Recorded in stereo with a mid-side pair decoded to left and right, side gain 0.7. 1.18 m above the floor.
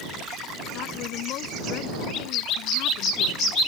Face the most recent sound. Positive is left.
turn(degrees=65)